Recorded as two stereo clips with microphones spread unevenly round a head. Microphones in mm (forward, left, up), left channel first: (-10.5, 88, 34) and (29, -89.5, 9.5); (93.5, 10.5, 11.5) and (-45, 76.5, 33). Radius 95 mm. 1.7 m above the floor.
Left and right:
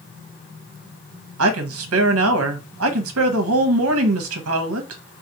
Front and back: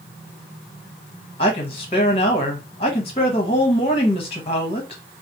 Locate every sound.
1.4 s a woman speaking: 90° right, 0.8 m